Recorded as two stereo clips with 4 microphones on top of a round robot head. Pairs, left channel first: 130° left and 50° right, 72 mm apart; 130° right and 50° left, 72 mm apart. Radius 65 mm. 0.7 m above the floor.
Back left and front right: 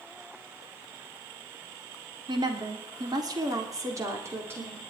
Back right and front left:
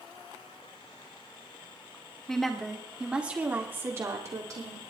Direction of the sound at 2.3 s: 50° right.